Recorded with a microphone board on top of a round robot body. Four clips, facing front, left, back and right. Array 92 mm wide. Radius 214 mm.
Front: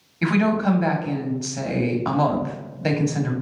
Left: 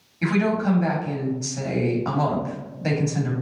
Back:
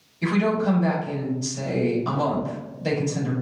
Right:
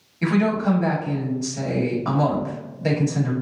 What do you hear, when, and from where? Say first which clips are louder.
0.2 s a woman speaking: right 1 dB, front 2 dB; 5° left, 1.6 m